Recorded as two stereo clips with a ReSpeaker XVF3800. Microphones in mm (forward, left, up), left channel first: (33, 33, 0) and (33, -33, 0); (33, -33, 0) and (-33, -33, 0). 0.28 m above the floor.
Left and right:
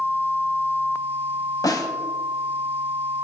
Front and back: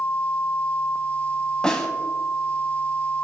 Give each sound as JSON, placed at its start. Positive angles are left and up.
{"t": 1.6, "sound": "a snare drum", "azimuth_deg": 75, "distance_m": 0.5}